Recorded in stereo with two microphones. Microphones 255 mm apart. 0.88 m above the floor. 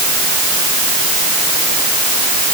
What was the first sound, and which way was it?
Only background noise.